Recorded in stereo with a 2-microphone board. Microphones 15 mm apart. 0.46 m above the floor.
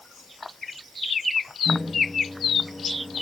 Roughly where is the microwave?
Right.